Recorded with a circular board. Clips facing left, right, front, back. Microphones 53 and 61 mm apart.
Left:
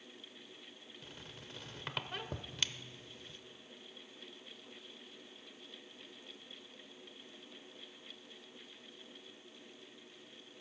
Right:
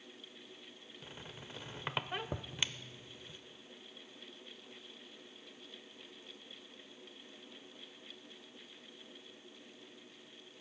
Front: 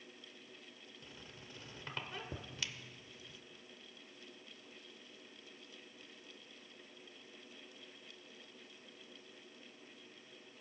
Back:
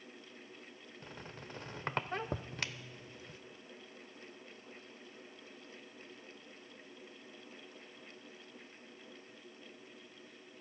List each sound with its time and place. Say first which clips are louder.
1.0 s a squeak: right 3 dB, back 7 dB; 155° right, 0.5 m